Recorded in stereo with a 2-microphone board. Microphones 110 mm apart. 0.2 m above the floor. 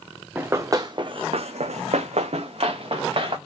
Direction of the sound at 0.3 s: 20° right (ahead or behind).